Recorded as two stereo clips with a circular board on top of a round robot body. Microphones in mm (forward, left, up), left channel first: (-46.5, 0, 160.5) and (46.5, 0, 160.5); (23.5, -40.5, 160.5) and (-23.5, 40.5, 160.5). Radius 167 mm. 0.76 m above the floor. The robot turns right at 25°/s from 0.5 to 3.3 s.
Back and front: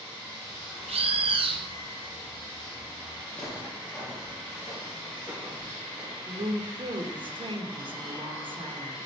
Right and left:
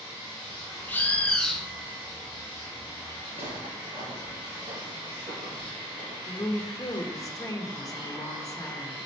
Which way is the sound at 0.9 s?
10° left.